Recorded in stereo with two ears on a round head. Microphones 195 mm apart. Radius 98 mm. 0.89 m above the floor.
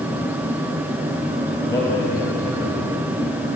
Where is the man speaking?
15° left (ahead or behind), 4 m.